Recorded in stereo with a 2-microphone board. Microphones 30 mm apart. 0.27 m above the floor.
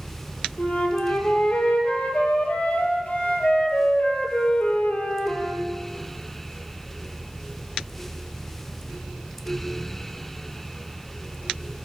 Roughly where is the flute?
Left.